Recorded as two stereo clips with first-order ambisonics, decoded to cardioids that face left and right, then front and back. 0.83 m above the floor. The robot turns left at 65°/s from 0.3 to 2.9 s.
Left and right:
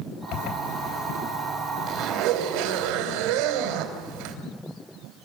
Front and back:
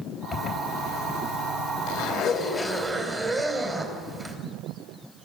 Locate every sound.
0.3 s a zipper: 65° left, 3 m; by 4.3 s 100° right, 3 m